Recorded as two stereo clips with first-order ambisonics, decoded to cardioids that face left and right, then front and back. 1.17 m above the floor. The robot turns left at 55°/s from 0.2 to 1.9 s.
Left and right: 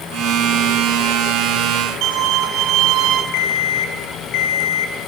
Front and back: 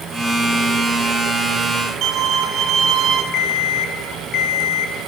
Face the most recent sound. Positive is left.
turn(degrees=55)